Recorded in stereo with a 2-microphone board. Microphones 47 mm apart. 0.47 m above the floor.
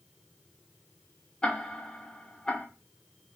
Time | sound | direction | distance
1.4 | ticking | 15° left (ahead or behind) | 1.1 m